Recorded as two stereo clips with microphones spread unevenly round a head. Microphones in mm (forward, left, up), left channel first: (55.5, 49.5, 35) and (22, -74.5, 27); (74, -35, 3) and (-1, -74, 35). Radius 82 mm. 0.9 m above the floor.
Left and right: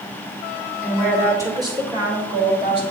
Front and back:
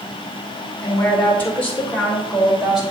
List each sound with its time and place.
0.8 s a woman speaking: 25° right, 3 m; by 2.8 s 70° right, 4 m